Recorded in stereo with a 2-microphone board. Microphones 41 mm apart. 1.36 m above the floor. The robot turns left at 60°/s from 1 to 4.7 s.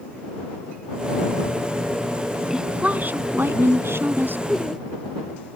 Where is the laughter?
5° left (ahead or behind); by 4.9 s 20° left (ahead or behind).